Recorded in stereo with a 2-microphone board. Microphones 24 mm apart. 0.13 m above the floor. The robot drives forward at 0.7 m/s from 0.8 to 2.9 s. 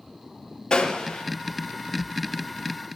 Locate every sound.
0.7 s a gunshot: 35° left (ahead or behind), 3 m